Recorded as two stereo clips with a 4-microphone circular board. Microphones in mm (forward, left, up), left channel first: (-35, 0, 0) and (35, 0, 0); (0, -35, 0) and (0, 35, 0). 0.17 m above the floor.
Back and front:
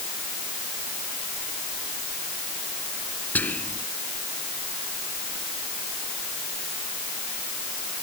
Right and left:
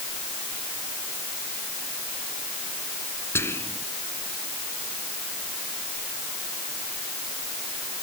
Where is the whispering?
125° right.